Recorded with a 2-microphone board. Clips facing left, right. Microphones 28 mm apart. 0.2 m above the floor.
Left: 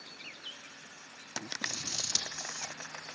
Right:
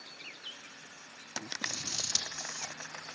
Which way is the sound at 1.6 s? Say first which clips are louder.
Even; centre (ahead or behind).